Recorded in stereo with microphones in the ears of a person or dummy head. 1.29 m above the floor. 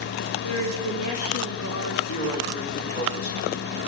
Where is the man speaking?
60° left (ahead or behind), 3.5 m.